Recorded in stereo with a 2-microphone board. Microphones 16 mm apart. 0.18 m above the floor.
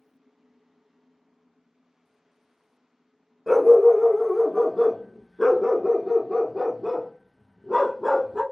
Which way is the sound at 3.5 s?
5° left (ahead or behind).